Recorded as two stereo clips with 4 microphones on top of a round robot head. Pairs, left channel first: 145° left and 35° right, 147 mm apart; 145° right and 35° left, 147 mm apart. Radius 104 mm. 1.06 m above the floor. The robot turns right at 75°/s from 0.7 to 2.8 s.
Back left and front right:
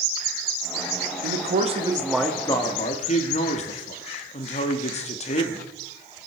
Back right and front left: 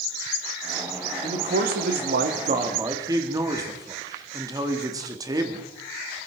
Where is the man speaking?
15° right, 1.7 m; by 5.7 s 100° left, 1.7 m.